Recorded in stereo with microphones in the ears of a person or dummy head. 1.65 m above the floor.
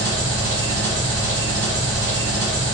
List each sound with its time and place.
0.0 s an engine running: 15° right (ahead or behind), 1.9 m